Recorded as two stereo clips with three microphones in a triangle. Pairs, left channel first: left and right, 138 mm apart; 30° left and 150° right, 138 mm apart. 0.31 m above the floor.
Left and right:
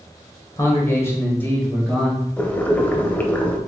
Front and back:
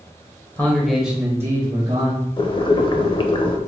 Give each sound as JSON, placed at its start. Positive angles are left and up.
{"t": 0.6, "sound": "a man speaking", "azimuth_deg": 80, "distance_m": 1.0}
{"t": 2.4, "sound": "boiling", "azimuth_deg": 20, "distance_m": 0.5}